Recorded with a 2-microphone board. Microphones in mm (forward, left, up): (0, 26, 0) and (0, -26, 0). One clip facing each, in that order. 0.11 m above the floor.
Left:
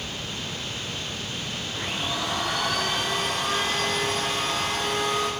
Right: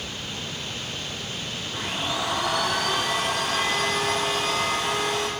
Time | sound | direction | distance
1.7 | a blender | 80° right | 4.5 m